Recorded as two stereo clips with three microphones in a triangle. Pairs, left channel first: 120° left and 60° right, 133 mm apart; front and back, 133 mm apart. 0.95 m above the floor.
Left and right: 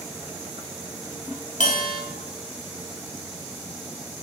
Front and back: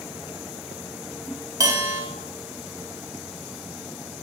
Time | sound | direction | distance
1.6 | a bell | 120° left | 1.7 m